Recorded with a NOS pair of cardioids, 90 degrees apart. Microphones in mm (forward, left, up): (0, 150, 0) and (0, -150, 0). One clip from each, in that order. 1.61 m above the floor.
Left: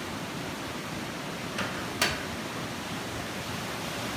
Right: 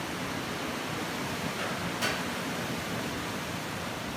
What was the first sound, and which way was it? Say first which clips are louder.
A microwave: left 4 dB; 65° left.